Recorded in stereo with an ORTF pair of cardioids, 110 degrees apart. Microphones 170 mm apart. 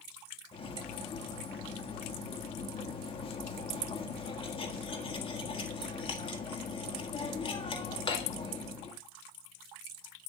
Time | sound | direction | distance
0.5 | cutlery clinking | 30° left | 1.6 m